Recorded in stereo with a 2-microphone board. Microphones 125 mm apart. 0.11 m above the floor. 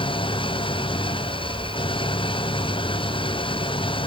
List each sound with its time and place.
0.0 s an engine running: 45° left (ahead or behind)